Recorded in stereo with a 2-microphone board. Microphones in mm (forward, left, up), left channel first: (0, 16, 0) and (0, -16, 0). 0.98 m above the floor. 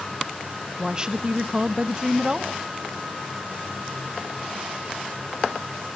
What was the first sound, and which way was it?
A woman speaking, 25° right (ahead or behind).